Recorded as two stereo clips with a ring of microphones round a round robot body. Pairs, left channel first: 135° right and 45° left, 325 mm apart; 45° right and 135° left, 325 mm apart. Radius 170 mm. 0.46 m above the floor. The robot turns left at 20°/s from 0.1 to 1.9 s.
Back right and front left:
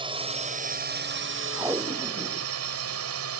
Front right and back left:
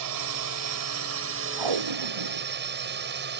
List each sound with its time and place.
0.0 s a drone: 120° left; by 3.4 s 80° left
1.6 s tape being pulled: 130° left; by 2.5 s 125° left